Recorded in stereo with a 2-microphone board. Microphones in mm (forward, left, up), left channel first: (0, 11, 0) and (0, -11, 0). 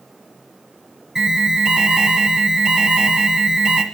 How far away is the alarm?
About 1.2 m.